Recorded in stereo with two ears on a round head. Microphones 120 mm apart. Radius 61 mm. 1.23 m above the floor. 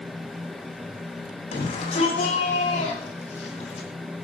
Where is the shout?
55° left (ahead or behind), 8.5 m.